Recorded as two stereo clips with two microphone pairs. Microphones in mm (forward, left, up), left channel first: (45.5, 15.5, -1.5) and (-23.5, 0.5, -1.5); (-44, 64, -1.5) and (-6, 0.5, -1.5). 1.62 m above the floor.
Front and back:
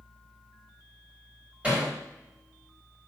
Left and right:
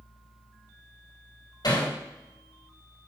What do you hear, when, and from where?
1.6 s hammering: 120° left, 5 m